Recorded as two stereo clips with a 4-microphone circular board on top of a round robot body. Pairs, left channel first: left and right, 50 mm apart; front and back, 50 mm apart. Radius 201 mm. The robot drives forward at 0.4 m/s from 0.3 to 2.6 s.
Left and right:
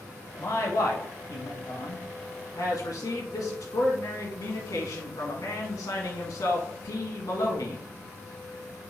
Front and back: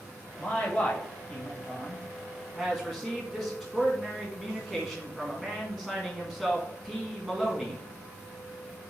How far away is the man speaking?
About 1.8 m.